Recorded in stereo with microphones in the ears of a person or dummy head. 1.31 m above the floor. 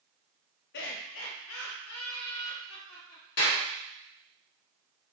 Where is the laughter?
60° left (ahead or behind), 0.7 m; by 3.3 s 80° left, 2 m.